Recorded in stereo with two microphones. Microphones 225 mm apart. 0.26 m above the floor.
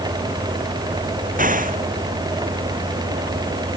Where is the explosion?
35° right (ahead or behind).